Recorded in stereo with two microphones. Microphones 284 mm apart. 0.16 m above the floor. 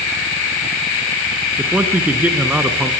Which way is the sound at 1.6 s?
5° right (ahead or behind).